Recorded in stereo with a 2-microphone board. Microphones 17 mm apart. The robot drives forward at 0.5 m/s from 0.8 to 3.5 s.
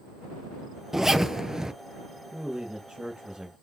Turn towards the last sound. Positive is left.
turn(degrees=-50)  # may be behind; listen again after turning